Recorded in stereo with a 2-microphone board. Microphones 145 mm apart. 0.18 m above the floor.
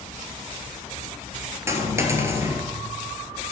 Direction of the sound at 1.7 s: 20° right (ahead or behind).